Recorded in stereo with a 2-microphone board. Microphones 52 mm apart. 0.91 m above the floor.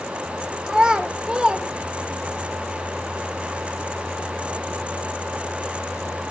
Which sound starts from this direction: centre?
A child speaking, at 0.7 s.